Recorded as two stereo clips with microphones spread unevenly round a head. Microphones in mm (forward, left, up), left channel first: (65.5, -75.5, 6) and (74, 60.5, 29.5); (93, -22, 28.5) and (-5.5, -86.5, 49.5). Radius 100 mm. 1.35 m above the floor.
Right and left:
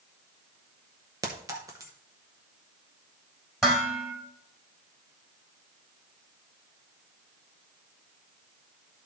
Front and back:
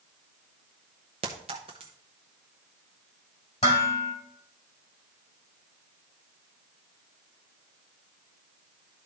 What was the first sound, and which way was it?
A clink, 155° left.